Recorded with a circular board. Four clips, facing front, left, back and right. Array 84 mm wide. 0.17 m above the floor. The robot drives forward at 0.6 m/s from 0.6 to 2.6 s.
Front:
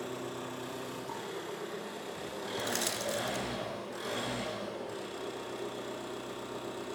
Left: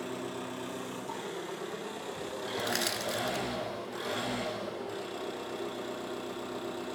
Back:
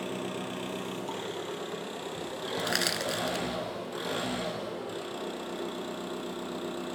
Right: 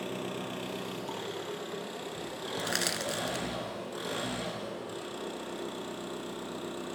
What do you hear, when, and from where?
0.0 s an engine running: 145° right, 2 m; by 7.0 s 155° right, 3 m
2.6 s crushing: 165° right, 0.6 m